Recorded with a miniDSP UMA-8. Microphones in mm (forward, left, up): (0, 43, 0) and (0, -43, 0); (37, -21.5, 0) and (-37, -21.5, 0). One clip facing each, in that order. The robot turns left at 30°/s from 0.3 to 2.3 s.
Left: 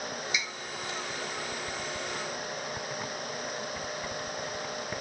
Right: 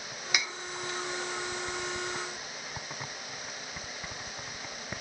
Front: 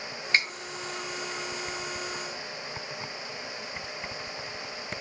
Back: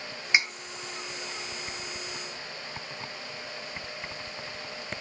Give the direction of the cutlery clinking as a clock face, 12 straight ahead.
3 o'clock.